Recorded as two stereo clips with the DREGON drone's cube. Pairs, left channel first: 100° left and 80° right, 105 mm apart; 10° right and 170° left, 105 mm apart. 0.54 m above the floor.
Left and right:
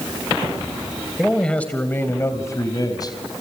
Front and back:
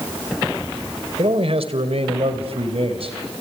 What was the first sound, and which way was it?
A man speaking, 175° right.